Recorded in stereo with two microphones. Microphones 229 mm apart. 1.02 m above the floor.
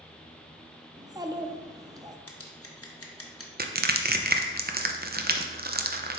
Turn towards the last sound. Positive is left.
turn(degrees=-45)  # may be behind; listen again after turning